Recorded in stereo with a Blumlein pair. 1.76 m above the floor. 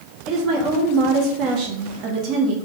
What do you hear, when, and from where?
0.3 s a woman speaking: 35° right, 0.7 m